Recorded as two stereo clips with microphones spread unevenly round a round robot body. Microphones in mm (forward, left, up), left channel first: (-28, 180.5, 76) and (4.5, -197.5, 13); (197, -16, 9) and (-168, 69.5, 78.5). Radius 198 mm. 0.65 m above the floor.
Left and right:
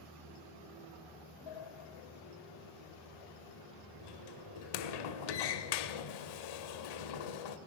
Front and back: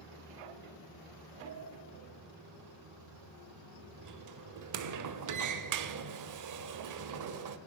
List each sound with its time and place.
1.5 s a sliding door: 120° left, 2 m